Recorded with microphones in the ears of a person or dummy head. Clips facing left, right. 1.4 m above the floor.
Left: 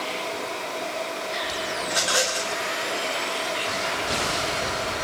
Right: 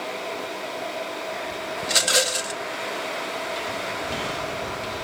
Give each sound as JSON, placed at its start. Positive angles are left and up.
{"t": 1.8, "sound": "a rattle", "side_deg": -30, "distance_m": 0.5}